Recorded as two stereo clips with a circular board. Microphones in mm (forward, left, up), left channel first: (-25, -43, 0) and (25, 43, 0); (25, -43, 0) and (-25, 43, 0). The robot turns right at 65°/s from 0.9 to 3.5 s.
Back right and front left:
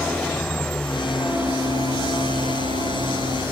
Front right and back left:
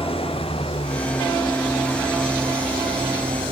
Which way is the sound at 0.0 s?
40° right.